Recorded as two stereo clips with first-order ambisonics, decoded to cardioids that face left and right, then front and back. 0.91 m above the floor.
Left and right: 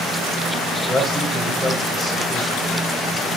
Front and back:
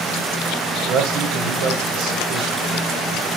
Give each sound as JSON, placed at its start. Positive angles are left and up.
{"t": 0.9, "sound": "a man speaking", "azimuth_deg": -175, "distance_m": 3.5}